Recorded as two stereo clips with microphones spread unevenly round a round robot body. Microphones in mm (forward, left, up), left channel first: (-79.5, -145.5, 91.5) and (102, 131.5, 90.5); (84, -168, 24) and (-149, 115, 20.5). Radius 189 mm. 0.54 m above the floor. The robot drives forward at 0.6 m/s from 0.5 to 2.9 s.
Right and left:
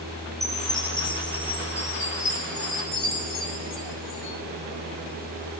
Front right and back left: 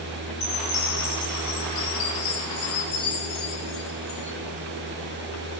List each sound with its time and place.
0.4 s a chime: 35° right, 4.5 m; by 4.4 s 50° right, 3.5 m